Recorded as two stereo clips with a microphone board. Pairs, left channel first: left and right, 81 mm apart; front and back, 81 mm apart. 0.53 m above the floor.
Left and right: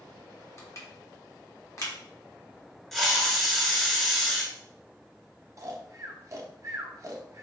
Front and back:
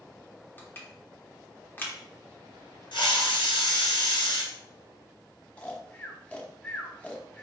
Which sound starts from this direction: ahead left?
Crushing, at 0.6 s.